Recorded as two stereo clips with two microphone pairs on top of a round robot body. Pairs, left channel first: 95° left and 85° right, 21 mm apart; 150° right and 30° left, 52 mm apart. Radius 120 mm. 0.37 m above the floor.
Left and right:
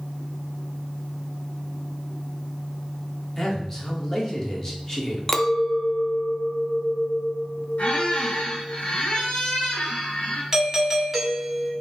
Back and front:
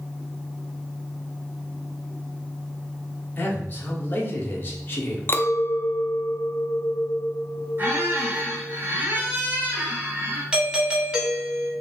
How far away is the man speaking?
About 1.7 m.